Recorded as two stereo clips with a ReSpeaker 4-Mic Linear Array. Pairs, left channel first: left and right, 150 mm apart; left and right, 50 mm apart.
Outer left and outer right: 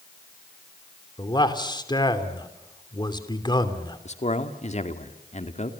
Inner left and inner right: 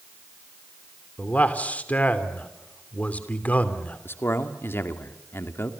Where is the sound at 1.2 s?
30° left (ahead or behind), 3 m.